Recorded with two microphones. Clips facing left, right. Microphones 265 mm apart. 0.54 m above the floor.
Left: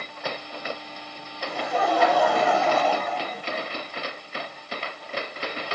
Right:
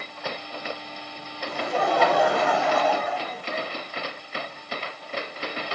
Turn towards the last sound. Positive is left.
turn(degrees=0)  # may be behind; listen again after turning